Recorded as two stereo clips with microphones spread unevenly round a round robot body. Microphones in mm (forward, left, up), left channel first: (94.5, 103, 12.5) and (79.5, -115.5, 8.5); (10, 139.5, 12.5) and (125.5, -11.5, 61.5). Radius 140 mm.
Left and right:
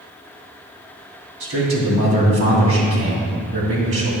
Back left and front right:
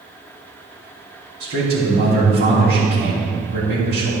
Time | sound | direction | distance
1.4 | a man speaking | 105° right | 2.5 m